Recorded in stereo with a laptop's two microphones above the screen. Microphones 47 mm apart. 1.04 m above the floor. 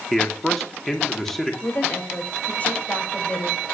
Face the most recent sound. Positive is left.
turn(degrees=35)  # may be behind; listen again after turning